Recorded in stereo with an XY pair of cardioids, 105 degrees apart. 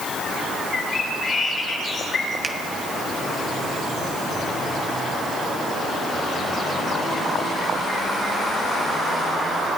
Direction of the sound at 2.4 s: 20° right.